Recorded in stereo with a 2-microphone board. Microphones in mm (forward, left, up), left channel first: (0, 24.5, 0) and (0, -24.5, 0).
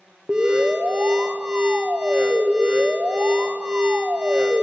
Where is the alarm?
20° right (ahead or behind), 0.9 m.